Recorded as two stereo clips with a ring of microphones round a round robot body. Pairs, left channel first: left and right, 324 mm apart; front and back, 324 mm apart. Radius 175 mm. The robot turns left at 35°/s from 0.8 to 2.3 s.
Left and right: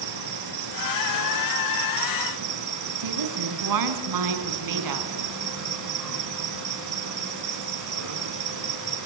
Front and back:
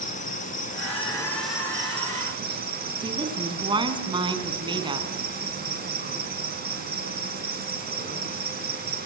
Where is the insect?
65° right, 3 m; by 9.1 s 120° right, 3 m.